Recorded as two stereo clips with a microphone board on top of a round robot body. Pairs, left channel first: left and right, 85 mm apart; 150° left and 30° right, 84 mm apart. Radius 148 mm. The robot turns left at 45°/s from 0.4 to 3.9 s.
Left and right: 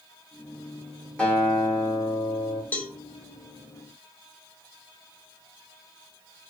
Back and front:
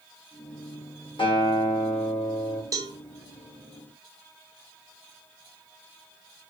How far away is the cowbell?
About 0.6 m.